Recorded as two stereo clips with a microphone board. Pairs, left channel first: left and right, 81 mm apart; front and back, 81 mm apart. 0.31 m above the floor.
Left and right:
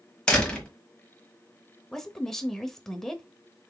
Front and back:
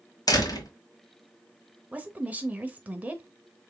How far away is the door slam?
About 1.2 m.